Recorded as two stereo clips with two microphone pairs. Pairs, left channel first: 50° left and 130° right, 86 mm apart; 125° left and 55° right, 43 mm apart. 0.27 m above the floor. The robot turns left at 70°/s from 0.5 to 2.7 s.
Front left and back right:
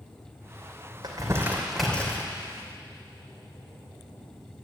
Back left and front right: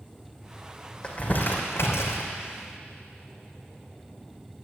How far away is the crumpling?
About 3 m.